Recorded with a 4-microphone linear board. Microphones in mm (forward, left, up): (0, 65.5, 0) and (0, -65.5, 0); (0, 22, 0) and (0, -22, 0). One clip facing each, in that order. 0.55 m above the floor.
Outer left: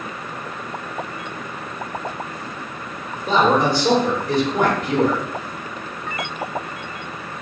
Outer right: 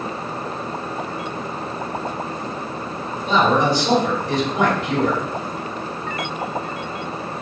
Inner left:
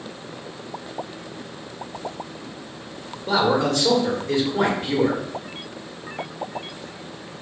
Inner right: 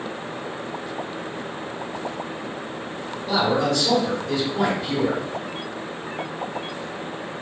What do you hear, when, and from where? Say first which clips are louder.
3.3 s a man speaking: outer left 1 dB, inner left 1 dB; 50° left (ahead or behind), 2 m